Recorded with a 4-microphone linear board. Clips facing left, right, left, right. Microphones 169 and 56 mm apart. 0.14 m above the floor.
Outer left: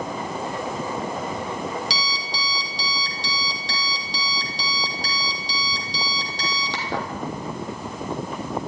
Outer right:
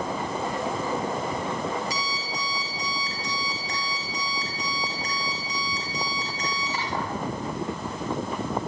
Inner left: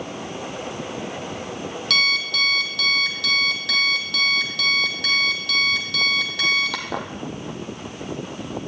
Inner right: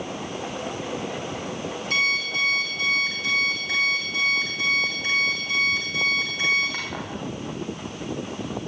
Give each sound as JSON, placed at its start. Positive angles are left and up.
{"t": 1.9, "sound": "an alarm clock", "side_deg": 75, "distance_m": 3.0}